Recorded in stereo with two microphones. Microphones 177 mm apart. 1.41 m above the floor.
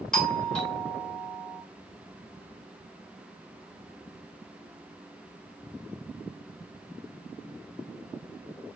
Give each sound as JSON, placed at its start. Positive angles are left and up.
{"t": 0.1, "sound": "a doorbell", "side_deg": 5, "distance_m": 0.9}